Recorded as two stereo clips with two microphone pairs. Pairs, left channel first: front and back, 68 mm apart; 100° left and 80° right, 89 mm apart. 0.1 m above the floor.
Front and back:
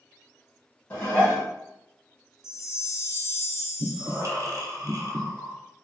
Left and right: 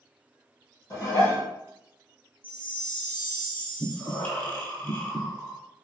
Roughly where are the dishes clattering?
Ahead left.